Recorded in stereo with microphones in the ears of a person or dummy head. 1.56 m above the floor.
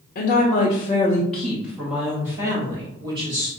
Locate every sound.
0.1 s a woman speaking: 50° left (ahead or behind), 1.1 m; by 3.5 s 30° right (ahead or behind), 2 m